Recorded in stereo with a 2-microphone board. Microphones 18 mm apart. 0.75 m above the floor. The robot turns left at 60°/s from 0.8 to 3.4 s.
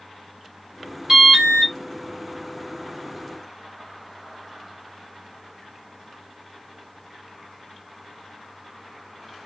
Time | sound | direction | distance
1.1 | an alarm | 30° right | 1.8 m